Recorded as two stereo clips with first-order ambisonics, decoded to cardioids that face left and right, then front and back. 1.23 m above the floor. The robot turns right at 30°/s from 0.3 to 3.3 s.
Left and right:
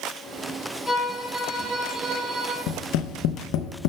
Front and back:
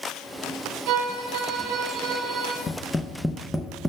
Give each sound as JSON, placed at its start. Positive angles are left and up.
{"t": 0.9, "sound": "a violin", "azimuth_deg": 180, "distance_m": 1.7}
{"t": 2.7, "sound": "tapping", "azimuth_deg": 70, "distance_m": 0.5}